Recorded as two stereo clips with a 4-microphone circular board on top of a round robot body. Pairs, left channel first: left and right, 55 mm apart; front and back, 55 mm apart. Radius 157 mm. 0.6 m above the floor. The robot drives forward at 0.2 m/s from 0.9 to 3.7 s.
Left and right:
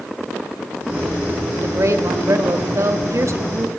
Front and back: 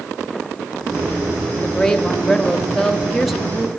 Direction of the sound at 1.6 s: 75° right.